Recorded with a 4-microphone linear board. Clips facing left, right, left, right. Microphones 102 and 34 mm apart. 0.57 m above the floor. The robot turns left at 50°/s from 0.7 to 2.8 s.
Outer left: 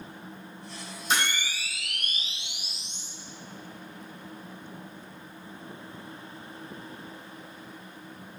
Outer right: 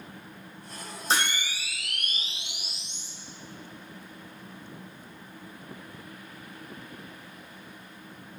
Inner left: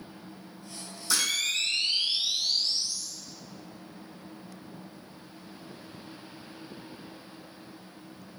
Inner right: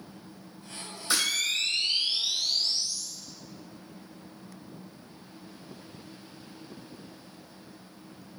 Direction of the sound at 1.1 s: 140° right.